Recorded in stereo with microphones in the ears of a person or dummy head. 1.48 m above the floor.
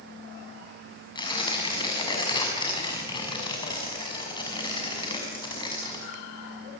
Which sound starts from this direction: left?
Tearing paper, at 1.1 s.